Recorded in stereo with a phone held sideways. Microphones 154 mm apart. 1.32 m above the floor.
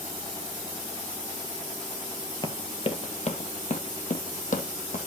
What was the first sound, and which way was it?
Running footsteps, 30° left (ahead or behind).